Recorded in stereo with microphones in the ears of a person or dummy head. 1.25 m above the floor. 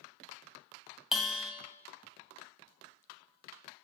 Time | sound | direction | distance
1.1 | a bell | centre (ahead or behind) | 0.6 m